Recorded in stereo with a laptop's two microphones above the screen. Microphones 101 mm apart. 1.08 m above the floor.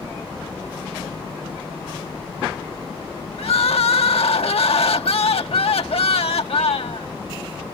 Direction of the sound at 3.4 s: 75° left (ahead or behind).